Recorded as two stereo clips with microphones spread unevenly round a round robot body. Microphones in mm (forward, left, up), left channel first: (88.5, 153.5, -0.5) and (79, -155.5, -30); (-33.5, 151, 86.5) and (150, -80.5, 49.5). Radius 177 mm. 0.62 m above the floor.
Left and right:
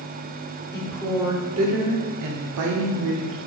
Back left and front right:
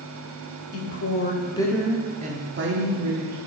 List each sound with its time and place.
0.7 s a woman speaking: 170° left, 1.3 m; by 3.4 s 75° right, 1.7 m